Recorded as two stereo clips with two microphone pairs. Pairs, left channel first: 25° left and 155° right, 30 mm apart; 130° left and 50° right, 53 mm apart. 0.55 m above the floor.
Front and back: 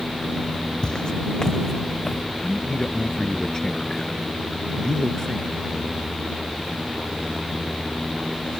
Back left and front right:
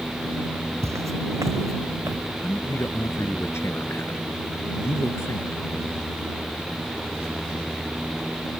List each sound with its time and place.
0.8 s footsteps: 40° right; by 2.2 s 55° right
2.4 s a man speaking: 95° left